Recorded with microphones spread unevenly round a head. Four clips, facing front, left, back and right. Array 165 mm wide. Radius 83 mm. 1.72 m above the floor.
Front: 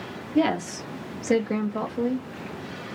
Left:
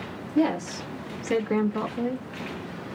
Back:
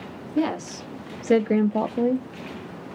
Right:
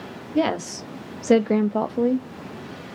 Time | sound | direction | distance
0.3 | a woman speaking | 70° right | 1.3 m